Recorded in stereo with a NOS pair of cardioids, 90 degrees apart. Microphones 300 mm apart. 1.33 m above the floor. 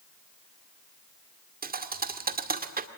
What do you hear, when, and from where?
1.6 s a thud: 30° right, 2 m